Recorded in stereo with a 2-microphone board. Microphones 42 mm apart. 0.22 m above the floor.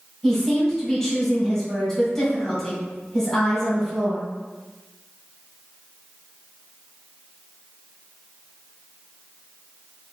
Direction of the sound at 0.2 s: 15° left (ahead or behind).